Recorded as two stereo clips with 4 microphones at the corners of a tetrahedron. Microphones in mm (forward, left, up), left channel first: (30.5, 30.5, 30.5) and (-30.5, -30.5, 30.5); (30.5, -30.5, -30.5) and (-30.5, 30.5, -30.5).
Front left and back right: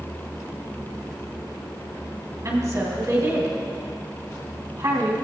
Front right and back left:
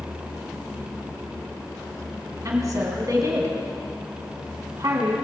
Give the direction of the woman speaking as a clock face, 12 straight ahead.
6 o'clock.